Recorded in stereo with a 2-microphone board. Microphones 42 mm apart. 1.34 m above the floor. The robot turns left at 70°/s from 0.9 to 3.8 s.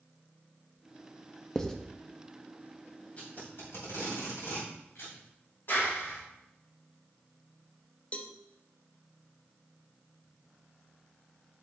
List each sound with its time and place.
1.6 s writing: 15° left (ahead or behind), 0.6 m; by 1.8 s 5° left (ahead or behind), 0.6 m
3.2 s tape being pulled: 30° left (ahead or behind), 2.5 m; by 5.2 s 65° left (ahead or behind), 2.5 m
5.7 s a clap: 55° left (ahead or behind), 2.5 m
8.1 s a cowbell: 30° left (ahead or behind), 0.5 m